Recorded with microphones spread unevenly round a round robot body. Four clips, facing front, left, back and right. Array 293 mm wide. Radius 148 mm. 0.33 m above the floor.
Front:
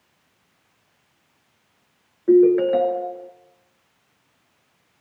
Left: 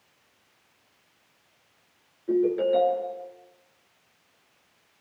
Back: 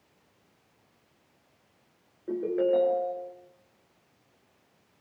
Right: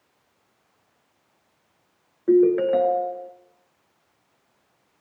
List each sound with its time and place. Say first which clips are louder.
2.3 s a ringtone: right 6 dB, front 12 dB; 40° right, 4.5 m